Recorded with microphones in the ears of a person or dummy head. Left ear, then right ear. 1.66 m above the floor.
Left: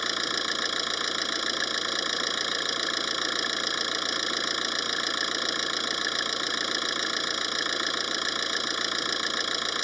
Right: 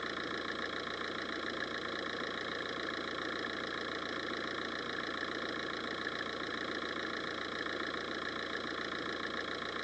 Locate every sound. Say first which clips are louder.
0.0 s an engine running: left 11 dB; 85° left